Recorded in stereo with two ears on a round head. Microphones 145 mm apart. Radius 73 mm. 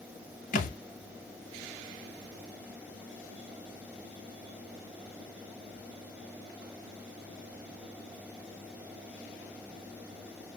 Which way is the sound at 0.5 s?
55° left (ahead or behind).